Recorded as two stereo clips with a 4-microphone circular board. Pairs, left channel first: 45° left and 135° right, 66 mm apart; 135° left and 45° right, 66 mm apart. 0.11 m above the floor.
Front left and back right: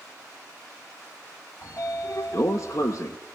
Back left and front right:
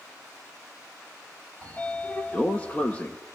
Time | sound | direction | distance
1.6 | a sliding door | 70° left | 0.8 m